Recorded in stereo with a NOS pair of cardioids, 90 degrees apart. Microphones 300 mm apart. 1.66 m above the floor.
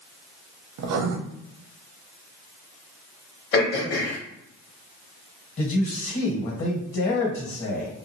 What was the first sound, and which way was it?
Writing, 65° right.